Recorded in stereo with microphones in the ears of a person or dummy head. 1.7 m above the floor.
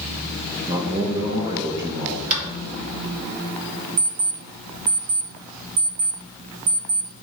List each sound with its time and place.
0.7 s a man speaking: 15° right (ahead or behind), 1.4 m
2.3 s tapping: 45° right (ahead or behind), 2 m
4.0 s an alarm clock: 50° right (ahead or behind), 2.5 m